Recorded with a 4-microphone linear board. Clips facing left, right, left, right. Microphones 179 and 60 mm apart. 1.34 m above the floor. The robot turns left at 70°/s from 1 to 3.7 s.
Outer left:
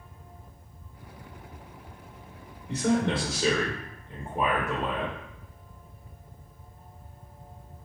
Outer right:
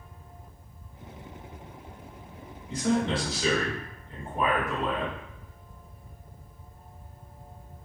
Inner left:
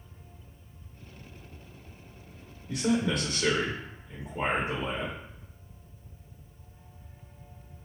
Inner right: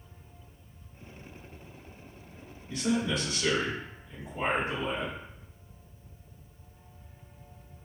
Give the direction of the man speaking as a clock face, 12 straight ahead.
9 o'clock.